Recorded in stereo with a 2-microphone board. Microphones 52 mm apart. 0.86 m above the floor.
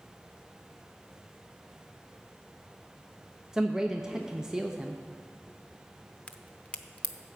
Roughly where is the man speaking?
Centre.